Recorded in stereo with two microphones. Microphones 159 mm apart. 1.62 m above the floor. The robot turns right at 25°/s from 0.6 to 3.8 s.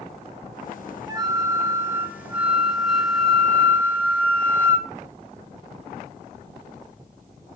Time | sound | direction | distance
1.1 | a flute | 50° right | 0.6 m